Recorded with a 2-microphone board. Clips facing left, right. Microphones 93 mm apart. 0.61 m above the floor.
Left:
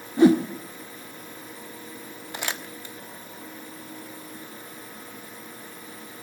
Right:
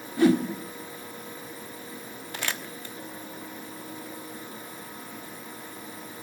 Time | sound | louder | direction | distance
0.2 | a whoosh | left 4 dB | 25° left (ahead or behind) | 1.5 m
2.3 | crumpling | left 1 dB | 20° left (ahead or behind) | 1.1 m